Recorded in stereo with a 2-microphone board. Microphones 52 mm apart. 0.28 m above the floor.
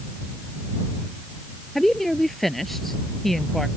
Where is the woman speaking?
Centre (ahead or behind).